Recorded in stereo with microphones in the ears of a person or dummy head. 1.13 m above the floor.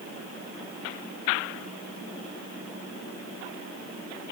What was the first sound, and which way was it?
Only background noise.